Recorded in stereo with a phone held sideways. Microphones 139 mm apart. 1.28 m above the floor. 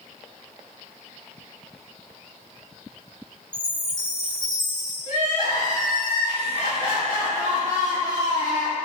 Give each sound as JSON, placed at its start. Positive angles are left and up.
{"t": 3.5, "sound": "a chime", "side_deg": 60, "distance_m": 2.5}
{"t": 5.1, "sound": "crying", "side_deg": 70, "distance_m": 2.0}